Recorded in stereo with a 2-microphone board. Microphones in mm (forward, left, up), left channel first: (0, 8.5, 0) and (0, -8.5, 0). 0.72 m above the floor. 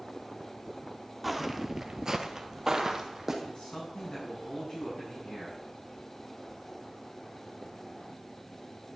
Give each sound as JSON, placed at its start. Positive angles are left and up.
{"t": 1.2, "sound": "footsteps", "side_deg": -5, "distance_m": 1.0}
{"t": 3.4, "sound": "a man speaking", "side_deg": 60, "distance_m": 6.5}